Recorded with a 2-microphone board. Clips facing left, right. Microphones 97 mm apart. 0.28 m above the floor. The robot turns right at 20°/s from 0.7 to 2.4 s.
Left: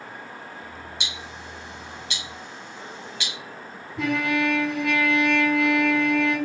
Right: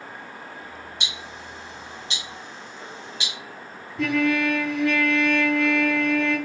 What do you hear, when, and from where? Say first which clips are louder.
1.0 s ticking: even; 40° right (ahead or behind), 1.4 m; by 3.3 s 20° right (ahead or behind), 1.4 m
4.0 s a trumpet: right 2 dB; 65° left (ahead or behind), 1.9 m